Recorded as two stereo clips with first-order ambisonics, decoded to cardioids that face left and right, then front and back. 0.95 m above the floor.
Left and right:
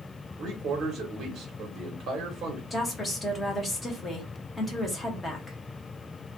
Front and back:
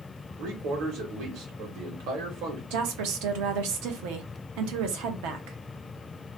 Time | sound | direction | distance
0.4 | a man speaking | 160° right | 1.2 m
2.7 | a woman speaking | 170° left | 0.8 m